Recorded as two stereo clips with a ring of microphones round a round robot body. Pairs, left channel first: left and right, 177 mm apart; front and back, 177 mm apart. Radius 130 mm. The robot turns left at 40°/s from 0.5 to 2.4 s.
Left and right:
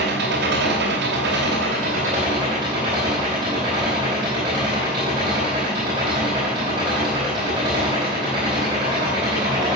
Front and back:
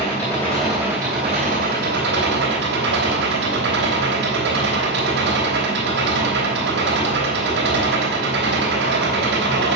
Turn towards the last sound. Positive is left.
turn(degrees=-160)